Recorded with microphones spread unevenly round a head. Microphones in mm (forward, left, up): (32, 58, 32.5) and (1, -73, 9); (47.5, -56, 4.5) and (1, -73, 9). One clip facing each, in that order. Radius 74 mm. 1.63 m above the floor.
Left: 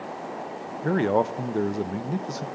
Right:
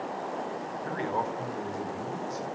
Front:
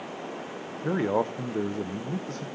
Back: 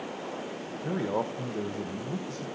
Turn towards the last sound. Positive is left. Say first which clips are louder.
# left 10 dB, front 4 dB
turn(degrees=85)